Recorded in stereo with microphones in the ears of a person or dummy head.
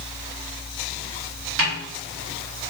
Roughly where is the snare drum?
Right.